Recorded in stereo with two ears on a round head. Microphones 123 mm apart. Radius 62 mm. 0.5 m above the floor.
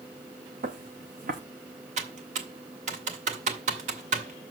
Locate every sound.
0.6 s footsteps: 70° right (ahead or behind), 1.6 m
2.0 s typing on a keyboard: 55° right (ahead or behind), 2 m